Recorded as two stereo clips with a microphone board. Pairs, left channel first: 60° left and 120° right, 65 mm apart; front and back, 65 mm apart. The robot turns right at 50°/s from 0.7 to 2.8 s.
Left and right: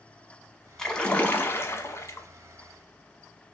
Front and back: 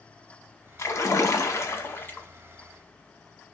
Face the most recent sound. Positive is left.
turn(degrees=80)